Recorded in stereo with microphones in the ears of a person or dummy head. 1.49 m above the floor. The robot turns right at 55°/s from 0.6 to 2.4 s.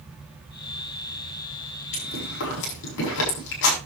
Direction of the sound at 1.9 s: 35° left (ahead or behind).